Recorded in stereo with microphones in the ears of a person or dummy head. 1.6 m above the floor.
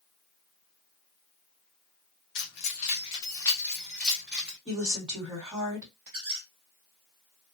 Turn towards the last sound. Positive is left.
turn(degrees=-30)  # may be behind; listen again after turning